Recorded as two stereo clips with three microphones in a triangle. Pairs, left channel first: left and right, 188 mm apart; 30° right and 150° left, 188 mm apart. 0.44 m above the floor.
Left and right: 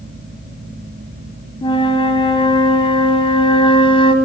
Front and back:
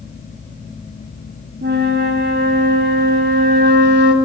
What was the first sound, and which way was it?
A flute, 150° left.